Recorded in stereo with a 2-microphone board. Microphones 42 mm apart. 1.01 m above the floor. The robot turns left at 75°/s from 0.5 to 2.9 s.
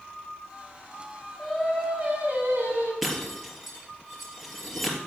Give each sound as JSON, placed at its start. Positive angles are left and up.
{"t": 1.4, "sound": "singing", "azimuth_deg": 10, "distance_m": 5.5}
{"t": 3.0, "sound": "breaking glass", "side_deg": -5, "distance_m": 3.5}